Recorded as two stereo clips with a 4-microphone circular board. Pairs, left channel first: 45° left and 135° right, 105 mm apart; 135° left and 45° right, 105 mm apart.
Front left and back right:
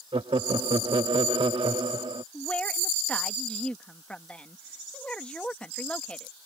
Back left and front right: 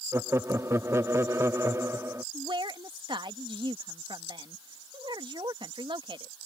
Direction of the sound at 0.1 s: 105° right.